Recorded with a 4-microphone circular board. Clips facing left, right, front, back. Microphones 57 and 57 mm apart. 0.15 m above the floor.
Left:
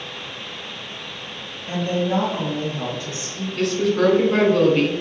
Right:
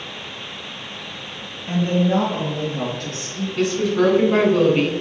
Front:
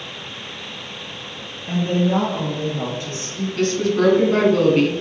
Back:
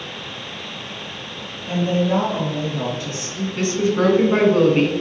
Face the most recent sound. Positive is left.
turn(degrees=-160)